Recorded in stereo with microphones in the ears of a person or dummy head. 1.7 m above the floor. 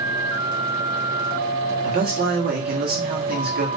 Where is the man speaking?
45° right (ahead or behind), 1.1 m.